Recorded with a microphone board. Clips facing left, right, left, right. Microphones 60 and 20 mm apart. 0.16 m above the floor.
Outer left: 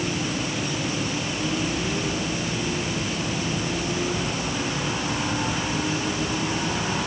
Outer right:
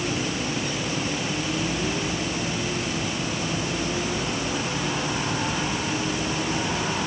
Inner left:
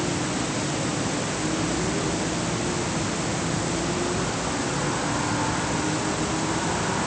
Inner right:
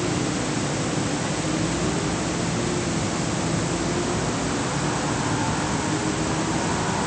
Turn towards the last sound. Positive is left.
No sound to turn to.